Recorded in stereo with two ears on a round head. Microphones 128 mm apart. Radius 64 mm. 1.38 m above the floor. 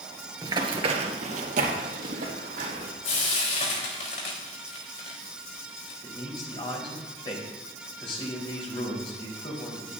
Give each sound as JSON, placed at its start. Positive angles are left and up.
{"t": 0.4, "sound": "running footsteps", "side_deg": -25, "distance_m": 1.6}
{"t": 3.0, "sound": "frying", "side_deg": 55, "distance_m": 3.5}
{"t": 6.0, "sound": "a man speaking", "side_deg": 40, "distance_m": 3.5}